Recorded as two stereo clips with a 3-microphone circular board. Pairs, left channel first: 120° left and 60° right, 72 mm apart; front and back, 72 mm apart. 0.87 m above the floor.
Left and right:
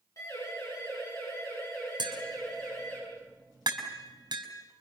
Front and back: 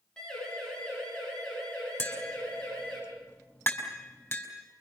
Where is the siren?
80° left, 8.5 m; by 3.0 s 75° left, 12 m.